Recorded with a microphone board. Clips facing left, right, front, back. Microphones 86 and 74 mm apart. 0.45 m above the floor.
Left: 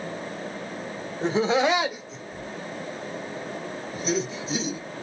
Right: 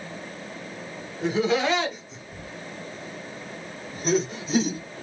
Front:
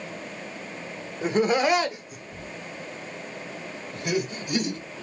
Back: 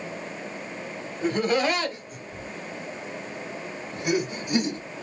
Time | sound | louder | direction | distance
1.2 | laughter | left 1 dB, front 2 dB | 55° left | 1.2 m